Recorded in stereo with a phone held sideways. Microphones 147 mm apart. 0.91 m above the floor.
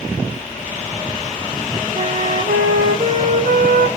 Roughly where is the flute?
Right.